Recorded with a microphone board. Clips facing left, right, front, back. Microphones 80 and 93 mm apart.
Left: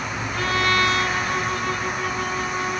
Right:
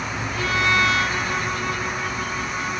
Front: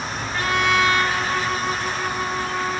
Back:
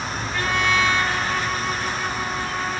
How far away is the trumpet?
About 4 m.